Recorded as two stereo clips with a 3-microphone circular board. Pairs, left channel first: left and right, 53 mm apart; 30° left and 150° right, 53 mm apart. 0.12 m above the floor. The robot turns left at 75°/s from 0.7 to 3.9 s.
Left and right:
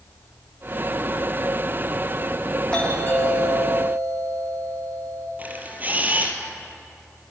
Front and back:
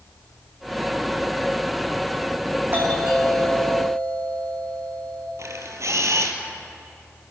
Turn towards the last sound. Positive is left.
turn(degrees=-145)